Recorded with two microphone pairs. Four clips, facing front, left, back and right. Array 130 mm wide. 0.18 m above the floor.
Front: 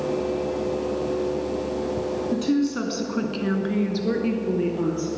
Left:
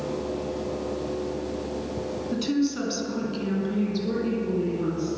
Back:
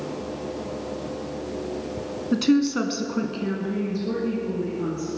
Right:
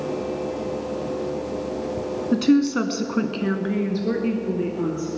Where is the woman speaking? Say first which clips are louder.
Right 8 dB, back 4 dB; 145° right, 1.5 m; by 5.1 s 30° right, 4 m.